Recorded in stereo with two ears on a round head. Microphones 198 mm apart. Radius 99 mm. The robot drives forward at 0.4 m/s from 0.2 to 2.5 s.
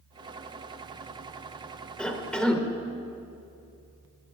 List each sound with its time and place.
2.0 s a cough: 5° left (ahead or behind), 1.0 m